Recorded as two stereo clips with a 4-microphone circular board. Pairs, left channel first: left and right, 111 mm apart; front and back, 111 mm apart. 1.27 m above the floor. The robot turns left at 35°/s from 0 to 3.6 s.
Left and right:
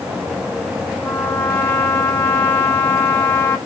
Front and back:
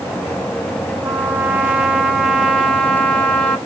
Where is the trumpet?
140° left, 0.8 m; by 3.6 s 50° left, 0.8 m.